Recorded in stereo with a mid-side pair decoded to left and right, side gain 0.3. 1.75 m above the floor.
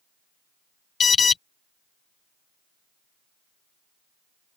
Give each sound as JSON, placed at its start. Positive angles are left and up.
{"t": 1.0, "sound": "an alarm", "azimuth_deg": 55}